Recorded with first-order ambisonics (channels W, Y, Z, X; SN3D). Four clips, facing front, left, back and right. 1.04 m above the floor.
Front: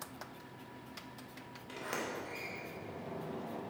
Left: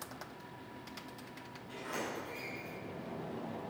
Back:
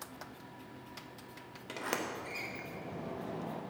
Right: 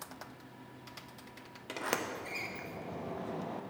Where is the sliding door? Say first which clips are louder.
Right 4 dB, back 2 dB; 115° right, 0.6 m.